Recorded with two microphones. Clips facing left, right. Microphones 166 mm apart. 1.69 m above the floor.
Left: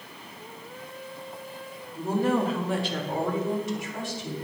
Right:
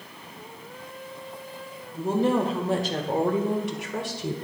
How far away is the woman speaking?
About 2.0 m.